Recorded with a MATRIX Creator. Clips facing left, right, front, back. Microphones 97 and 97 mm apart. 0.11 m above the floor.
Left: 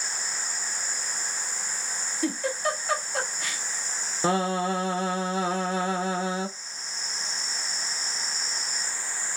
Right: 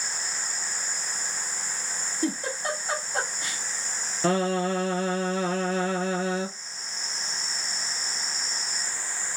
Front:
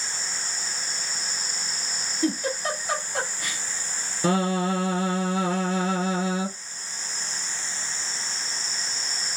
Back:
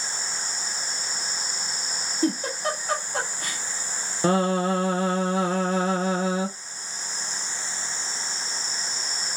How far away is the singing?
About 0.8 m.